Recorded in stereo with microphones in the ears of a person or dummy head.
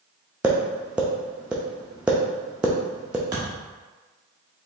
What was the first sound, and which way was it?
Tapping, 5° right (ahead or behind).